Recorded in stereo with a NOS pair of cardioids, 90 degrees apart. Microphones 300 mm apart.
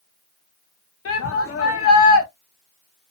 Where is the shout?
50° left, 1.2 m.